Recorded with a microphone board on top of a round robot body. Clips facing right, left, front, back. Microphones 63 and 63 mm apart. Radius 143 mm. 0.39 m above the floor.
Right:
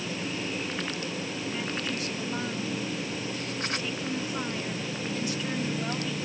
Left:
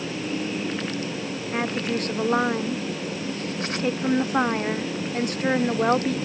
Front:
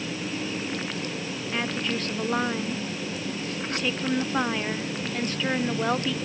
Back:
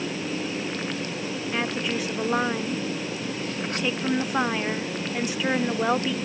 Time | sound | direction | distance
1.5 | a woman speaking | 100° left | ?